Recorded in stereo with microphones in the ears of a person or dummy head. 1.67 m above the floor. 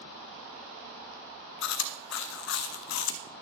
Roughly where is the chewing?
Left.